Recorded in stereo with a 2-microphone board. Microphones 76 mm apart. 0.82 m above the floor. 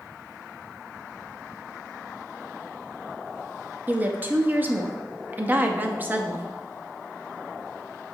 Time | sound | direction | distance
3.9 | a woman speaking | 25° right (ahead or behind) | 0.7 m